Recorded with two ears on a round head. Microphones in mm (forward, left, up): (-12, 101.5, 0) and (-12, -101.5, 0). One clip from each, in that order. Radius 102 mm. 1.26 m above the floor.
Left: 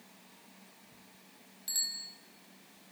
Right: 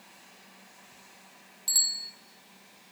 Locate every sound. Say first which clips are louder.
1.7 s a bicycle bell: right 8 dB; 25° right (ahead or behind), 3.5 m